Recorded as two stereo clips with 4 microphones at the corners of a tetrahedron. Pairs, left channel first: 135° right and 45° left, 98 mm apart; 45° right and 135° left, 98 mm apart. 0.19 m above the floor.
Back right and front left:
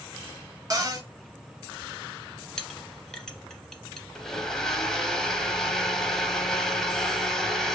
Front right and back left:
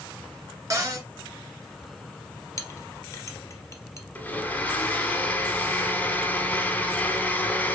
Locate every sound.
0.7 s a cupboard door: 90° left, 0.8 m
2.6 s a clink: 55° right, 0.7 m
4.2 s a blender: 60° right, 0.8 m